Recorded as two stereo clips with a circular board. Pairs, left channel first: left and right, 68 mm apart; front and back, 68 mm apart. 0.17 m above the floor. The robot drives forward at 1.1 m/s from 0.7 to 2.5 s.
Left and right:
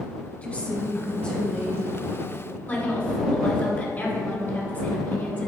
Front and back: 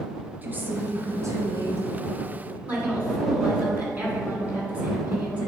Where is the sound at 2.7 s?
130° left, 2 m.